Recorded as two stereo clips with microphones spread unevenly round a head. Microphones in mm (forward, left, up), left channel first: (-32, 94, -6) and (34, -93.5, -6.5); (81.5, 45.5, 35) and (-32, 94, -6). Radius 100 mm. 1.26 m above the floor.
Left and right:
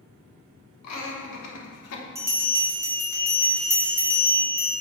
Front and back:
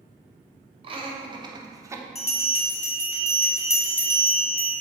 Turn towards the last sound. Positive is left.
turn(degrees=5)